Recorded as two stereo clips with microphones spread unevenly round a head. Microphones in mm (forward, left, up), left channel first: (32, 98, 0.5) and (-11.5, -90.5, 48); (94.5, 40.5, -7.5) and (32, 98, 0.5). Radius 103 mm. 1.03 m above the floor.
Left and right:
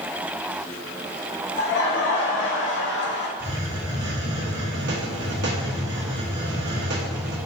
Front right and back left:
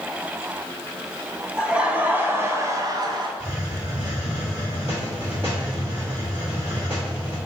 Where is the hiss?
140° right, 1.1 m.